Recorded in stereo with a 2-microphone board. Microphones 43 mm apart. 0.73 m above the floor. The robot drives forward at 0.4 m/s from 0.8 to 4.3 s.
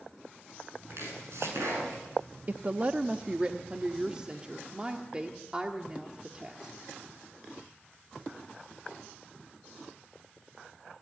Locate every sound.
0.9 s chopping: 75° right (ahead or behind), 8.5 m
2.5 s a woman speaking: 40° right (ahead or behind), 0.7 m; by 6.8 s 20° right (ahead or behind), 1.2 m